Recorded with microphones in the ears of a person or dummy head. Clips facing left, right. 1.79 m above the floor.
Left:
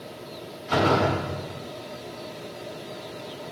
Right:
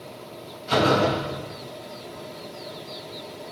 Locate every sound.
0.7 s a door slam: 40° right (ahead or behind), 1.3 m